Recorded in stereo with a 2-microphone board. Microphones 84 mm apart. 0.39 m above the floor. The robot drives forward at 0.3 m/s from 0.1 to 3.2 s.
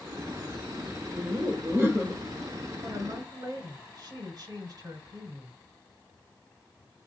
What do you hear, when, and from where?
1.1 s laughter: 30° right (ahead or behind), 1.3 m; by 2.2 s 25° right (ahead or behind), 1.5 m
2.8 s a woman speaking: 50° right (ahead or behind), 1.5 m